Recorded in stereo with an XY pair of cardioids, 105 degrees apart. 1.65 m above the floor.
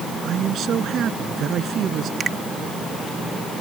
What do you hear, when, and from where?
0.2 s a man speaking: 60° right
2.2 s a finger snap: 45° right